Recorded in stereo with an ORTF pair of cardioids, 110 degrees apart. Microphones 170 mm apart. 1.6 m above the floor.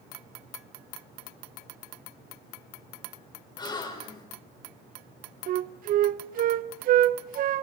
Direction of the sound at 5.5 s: 55° right.